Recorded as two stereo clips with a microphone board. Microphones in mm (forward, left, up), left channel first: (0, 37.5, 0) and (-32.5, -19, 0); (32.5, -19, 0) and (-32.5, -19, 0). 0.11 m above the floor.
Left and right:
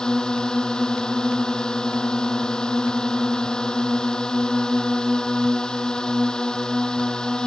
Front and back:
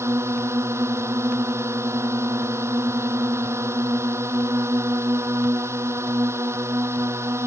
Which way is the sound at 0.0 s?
140° left.